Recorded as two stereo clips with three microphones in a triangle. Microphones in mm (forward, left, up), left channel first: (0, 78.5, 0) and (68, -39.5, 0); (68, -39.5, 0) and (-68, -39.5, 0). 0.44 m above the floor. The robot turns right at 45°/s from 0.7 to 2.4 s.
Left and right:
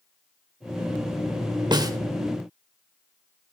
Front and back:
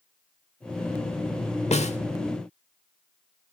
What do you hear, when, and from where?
1.7 s a snare drum: 10° right, 1.2 m; by 2.0 s straight ahead, 1.2 m